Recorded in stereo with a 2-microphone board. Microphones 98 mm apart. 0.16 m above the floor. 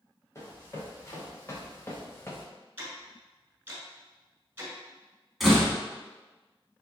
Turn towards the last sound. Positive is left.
turn(degrees=0)  # may be behind; listen again after turning